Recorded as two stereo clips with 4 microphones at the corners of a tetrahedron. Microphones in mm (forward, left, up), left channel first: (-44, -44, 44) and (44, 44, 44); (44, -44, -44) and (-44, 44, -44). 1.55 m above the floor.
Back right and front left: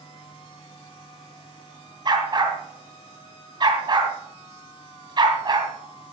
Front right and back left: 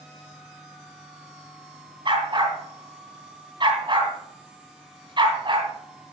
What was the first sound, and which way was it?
A dog barking, 95° left.